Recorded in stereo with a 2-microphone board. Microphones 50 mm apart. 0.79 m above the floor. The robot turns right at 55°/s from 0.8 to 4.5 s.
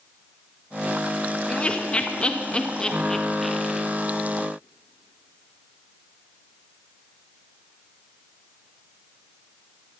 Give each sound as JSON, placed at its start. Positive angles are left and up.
{"t": 1.5, "sound": "laughter", "side_deg": 20, "distance_m": 0.9}